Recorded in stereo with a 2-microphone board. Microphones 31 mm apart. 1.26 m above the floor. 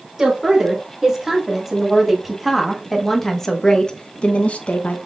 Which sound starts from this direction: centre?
A woman speaking, at 0.2 s.